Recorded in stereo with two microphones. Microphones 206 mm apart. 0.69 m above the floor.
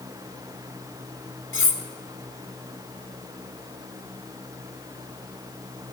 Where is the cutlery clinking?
75° left (ahead or behind), 1.2 m.